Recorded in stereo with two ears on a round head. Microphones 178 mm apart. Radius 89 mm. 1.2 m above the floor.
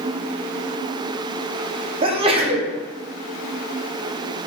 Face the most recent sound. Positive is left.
turn(degrees=-30)  # may be behind; listen again after turning